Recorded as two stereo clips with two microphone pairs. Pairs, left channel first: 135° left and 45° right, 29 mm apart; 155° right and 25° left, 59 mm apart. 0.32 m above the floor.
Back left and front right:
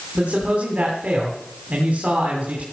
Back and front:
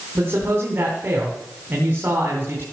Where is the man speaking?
25° right, 3 m.